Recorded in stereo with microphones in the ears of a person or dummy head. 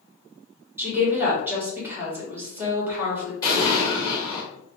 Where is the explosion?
25° left (ahead or behind), 2.0 m.